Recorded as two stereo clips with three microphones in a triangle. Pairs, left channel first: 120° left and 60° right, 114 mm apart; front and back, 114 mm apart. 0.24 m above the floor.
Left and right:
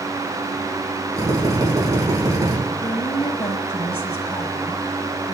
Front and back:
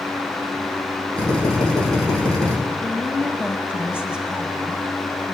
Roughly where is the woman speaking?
Left.